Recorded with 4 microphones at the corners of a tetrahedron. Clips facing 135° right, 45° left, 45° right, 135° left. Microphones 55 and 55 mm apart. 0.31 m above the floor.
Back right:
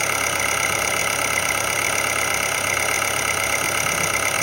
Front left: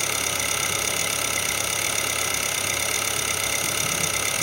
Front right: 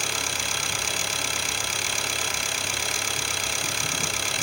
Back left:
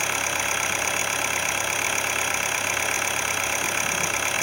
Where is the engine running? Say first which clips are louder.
Back right 6 dB, back left 4 dB; 175° right, 0.8 m.